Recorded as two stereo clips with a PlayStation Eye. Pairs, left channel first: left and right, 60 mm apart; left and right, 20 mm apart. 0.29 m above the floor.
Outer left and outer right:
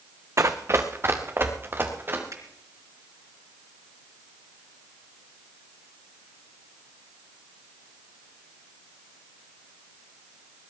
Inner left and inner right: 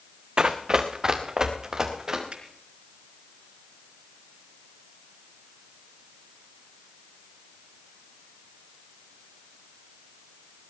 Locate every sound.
0.4 s running footsteps: 55° right (ahead or behind), 1.5 m; by 2.2 s 35° right (ahead or behind), 4 m
2.3 s a finger snap: 70° right (ahead or behind), 4 m